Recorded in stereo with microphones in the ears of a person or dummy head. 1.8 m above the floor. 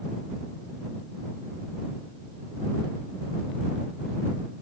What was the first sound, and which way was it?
Only background noise.